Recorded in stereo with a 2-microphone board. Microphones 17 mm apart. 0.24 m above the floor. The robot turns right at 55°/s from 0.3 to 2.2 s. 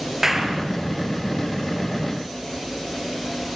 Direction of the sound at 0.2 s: 25° right (ahead or behind).